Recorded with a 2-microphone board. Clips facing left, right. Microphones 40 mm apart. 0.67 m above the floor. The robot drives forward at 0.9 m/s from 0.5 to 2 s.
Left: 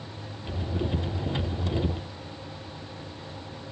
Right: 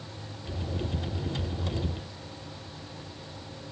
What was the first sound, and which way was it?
Only background noise.